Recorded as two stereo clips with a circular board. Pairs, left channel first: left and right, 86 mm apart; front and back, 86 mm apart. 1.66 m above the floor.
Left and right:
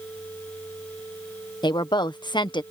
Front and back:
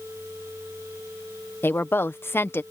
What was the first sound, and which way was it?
A woman speaking, 65° left.